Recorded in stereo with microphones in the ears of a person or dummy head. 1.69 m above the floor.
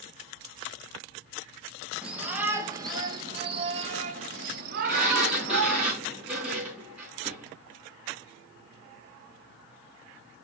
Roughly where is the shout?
Centre.